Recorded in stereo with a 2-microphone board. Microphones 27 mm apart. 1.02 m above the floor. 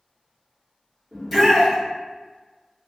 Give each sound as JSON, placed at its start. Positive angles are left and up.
{"t": 1.1, "sound": "a shout", "side_deg": -5, "distance_m": 1.9}